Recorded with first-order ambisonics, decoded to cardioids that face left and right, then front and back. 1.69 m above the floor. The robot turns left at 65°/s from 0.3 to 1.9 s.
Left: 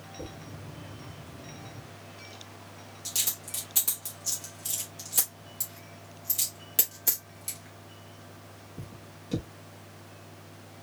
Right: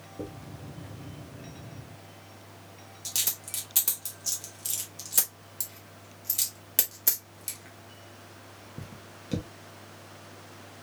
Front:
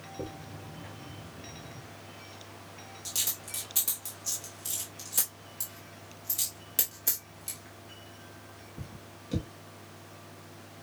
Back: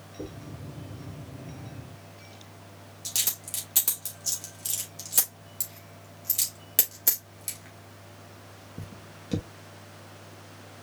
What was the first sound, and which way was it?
A dropped coin, 50° right.